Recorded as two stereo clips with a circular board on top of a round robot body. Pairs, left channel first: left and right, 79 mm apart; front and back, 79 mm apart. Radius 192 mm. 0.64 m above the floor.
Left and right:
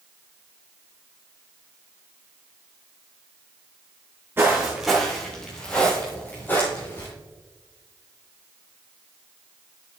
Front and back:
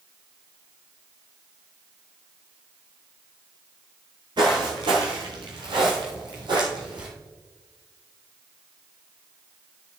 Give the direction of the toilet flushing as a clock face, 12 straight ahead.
I don't hear a toilet flushing.